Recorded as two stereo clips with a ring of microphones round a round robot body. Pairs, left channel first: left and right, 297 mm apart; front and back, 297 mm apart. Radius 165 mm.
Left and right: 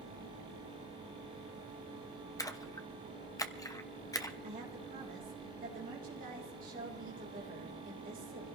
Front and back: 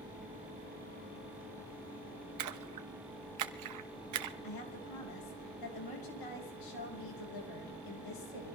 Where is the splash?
170° left, 1.2 m.